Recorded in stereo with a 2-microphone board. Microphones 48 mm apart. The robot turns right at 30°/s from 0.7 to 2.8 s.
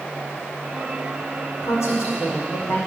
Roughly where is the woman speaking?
Ahead left.